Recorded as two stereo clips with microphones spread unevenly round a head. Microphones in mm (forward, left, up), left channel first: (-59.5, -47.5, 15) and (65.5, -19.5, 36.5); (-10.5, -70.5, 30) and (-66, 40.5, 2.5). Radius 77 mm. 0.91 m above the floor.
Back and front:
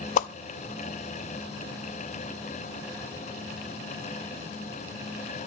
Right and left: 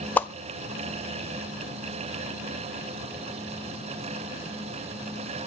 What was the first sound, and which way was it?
A whoosh, 135° right.